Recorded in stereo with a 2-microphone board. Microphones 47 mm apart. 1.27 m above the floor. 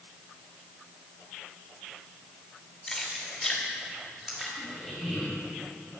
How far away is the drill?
No drill in this recording.